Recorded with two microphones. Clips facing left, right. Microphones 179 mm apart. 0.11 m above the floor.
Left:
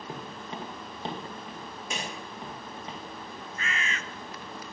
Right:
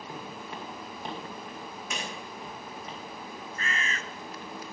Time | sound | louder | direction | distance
0.1 | footsteps | left 1 dB | 25° left (ahead or behind) | 3 m
1.9 | a clap | left 2 dB | 30° left (ahead or behind) | 7 m
3.6 | a bird | even | 35° right (ahead or behind) | 0.9 m